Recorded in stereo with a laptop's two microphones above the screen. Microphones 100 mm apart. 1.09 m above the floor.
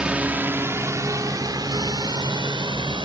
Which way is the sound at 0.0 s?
10° right (ahead or behind).